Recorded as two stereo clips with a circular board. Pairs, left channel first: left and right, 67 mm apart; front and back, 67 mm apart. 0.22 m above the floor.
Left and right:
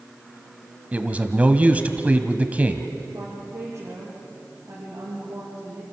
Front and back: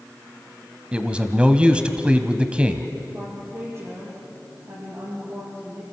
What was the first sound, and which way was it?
A man speaking, 125° right.